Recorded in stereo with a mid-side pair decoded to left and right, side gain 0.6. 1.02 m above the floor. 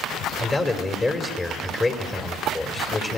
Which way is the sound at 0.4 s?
20° left.